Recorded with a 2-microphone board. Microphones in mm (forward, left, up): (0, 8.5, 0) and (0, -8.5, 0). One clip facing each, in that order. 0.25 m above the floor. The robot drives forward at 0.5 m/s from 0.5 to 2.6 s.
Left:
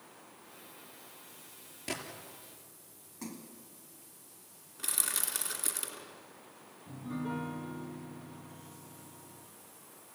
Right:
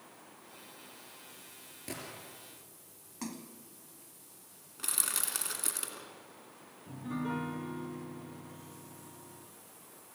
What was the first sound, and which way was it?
A gunshot, 25° left (ahead or behind).